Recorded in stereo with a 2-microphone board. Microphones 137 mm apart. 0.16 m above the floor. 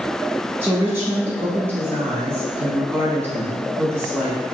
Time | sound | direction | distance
0.6 | a woman speaking | 20° right (ahead or behind) | 1.1 m